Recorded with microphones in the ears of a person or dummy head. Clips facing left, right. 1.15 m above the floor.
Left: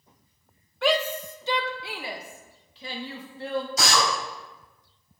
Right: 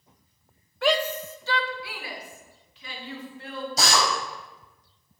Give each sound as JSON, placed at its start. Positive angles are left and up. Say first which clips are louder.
{"t": 0.8, "sound": "a shout", "louder": "even", "side_deg": -5, "distance_m": 0.6}
{"t": 3.8, "sound": "a drill", "louder": "right 3 dB", "side_deg": -35, "distance_m": 4.5}